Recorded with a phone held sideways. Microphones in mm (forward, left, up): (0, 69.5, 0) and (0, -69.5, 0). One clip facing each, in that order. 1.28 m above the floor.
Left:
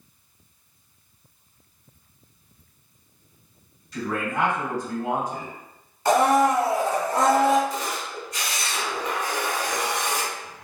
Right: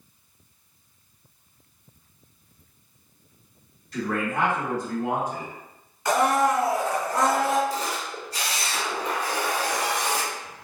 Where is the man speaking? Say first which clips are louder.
Even; 60° right (ahead or behind), 1.5 m.